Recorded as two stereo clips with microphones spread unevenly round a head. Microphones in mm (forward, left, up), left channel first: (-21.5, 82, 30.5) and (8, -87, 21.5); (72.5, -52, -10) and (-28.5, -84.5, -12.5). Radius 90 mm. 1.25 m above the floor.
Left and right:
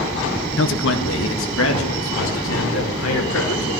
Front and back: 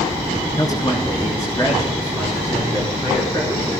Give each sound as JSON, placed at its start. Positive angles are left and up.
{"t": 0.6, "sound": "a man speaking", "azimuth_deg": 90, "distance_m": 1.5}